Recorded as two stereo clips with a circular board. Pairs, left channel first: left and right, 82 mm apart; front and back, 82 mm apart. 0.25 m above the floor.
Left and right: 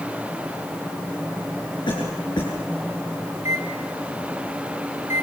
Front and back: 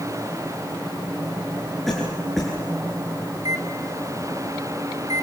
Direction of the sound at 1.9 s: 90° left.